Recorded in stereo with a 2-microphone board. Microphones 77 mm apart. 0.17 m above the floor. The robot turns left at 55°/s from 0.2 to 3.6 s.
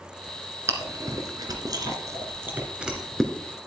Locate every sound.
0.7 s chewing: 35° right (ahead or behind), 2 m; by 3.3 s 10° left (ahead or behind), 2 m